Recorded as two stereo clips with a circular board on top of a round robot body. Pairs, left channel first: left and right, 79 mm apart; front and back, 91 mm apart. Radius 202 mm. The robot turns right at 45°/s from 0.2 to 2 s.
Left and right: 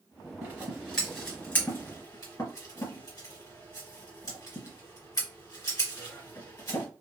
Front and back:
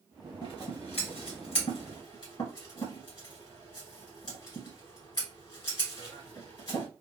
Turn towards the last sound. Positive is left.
turn(degrees=40)